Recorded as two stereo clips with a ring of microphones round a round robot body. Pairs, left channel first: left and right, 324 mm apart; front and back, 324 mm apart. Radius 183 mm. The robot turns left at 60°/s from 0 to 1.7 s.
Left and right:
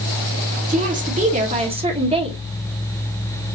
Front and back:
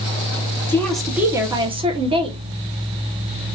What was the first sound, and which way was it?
A woman speaking, 75° right.